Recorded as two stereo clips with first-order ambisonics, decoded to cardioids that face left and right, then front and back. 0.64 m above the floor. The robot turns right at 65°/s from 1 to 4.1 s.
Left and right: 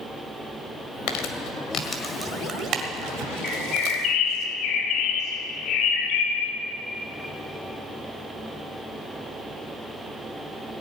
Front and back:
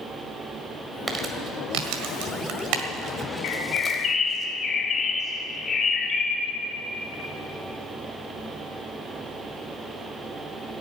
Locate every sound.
1.1 s crumpling: 105° left, 1.6 m; by 4.4 s 60° right, 1.6 m
3.4 s a bird: 20° left, 1.8 m; by 6.5 s 65° left, 1.8 m